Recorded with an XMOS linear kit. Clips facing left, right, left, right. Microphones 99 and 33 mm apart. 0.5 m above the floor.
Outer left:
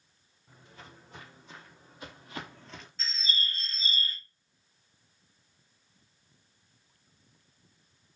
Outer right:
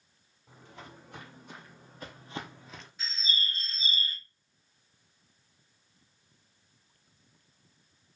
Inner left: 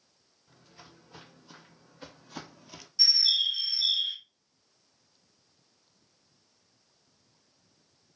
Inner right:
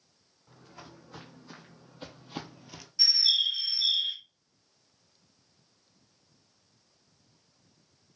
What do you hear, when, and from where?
0.5 s footsteps: 70° right (ahead or behind), 1.5 m; by 2.9 s 10° left (ahead or behind), 0.5 m
3.0 s a bird: 15° right (ahead or behind), 0.7 m